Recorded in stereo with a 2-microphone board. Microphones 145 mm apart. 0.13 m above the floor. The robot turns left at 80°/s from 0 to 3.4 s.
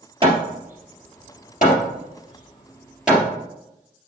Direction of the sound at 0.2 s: 35° right (ahead or behind).